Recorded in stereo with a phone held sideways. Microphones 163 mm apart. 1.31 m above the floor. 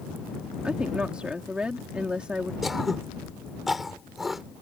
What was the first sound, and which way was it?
A woman speaking, 5° right (ahead or behind).